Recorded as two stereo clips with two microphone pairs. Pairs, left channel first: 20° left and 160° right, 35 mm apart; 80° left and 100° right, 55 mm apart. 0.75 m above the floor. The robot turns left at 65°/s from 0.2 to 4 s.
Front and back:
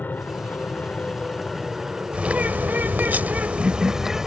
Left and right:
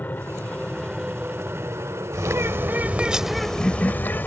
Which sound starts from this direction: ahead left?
An aircraft, at 0.0 s.